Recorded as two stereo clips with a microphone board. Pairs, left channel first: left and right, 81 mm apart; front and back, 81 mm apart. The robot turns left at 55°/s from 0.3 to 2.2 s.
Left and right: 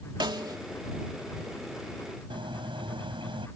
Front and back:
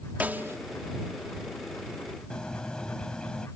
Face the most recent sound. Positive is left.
turn(degrees=-80)